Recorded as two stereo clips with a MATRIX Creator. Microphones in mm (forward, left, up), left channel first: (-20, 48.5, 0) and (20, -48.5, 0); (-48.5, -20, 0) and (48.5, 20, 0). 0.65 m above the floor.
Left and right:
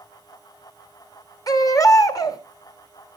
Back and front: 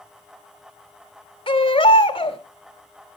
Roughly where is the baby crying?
Behind.